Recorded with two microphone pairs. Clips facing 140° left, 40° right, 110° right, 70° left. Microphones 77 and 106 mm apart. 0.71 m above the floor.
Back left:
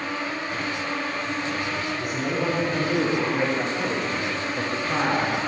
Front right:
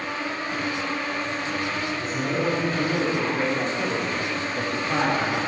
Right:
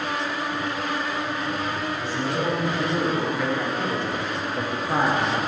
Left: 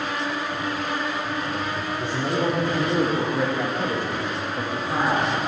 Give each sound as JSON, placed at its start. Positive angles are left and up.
{"t": 2.0, "sound": "a man speaking", "azimuth_deg": 65, "distance_m": 2.0}